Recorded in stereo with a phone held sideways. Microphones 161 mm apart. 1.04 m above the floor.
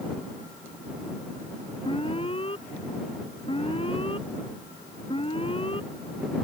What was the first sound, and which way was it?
An alarm, 35° left (ahead or behind).